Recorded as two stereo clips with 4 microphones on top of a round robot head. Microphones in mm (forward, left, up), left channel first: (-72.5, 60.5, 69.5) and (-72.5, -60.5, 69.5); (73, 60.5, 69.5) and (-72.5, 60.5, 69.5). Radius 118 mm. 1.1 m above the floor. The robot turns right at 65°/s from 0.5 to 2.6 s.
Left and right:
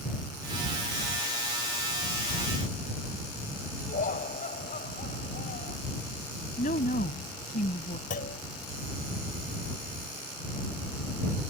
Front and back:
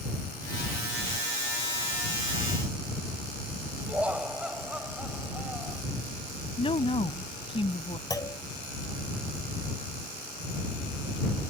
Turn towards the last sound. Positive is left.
turn(degrees=65)